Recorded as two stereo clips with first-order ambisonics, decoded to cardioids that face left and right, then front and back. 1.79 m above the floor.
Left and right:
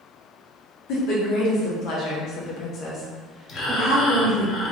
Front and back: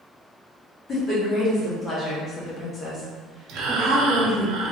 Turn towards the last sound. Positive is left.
turn(degrees=145)